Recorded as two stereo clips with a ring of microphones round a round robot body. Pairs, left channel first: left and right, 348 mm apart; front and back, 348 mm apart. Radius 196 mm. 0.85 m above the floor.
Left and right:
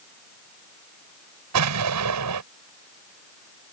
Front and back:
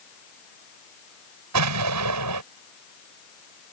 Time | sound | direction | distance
1.5 | an explosion | 135° right | ?